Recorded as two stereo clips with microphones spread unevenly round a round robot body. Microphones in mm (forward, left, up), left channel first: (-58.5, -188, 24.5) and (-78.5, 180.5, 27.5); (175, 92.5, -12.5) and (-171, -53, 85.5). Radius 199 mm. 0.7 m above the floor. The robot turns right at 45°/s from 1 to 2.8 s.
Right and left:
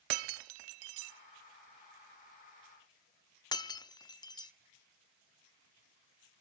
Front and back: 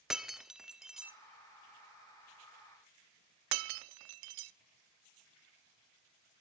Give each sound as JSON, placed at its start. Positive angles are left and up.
{"t": 0.1, "sound": "breaking glass", "azimuth_deg": 110, "distance_m": 0.8}